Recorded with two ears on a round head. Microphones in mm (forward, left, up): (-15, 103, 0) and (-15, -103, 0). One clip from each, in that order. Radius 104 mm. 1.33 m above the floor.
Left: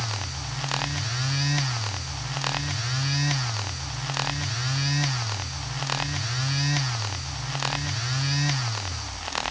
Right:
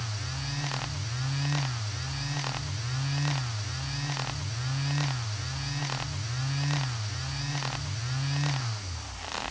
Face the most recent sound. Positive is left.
No sound to turn to.